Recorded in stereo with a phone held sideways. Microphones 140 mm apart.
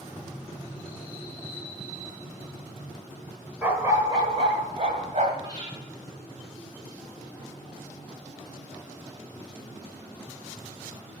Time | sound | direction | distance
3.6 | a dog barking | 15° right (ahead or behind) | 1.3 m
5.4 | breathing | 35° right (ahead or behind) | 5 m